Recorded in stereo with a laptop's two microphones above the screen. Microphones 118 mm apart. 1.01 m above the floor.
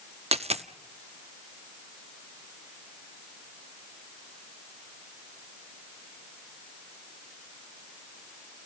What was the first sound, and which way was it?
A dropped coin, 65° right (ahead or behind).